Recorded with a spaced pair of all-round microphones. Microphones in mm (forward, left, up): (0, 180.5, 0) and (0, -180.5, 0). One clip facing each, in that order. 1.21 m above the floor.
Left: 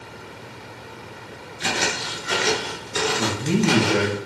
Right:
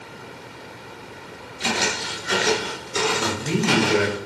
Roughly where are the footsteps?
Left.